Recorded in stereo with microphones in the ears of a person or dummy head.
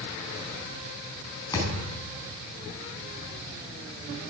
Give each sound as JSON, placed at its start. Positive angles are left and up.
{"t": 1.5, "sound": "a thud", "side_deg": 15, "distance_m": 4.5}